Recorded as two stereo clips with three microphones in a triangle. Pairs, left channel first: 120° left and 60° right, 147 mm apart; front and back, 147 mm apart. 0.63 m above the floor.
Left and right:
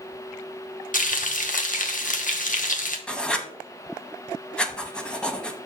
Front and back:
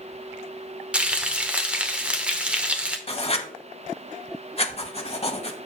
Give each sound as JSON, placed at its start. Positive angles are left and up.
{"t": 0.9, "sound": "frying", "azimuth_deg": 95, "distance_m": 0.8}
{"t": 3.1, "sound": "writing", "azimuth_deg": 40, "distance_m": 0.7}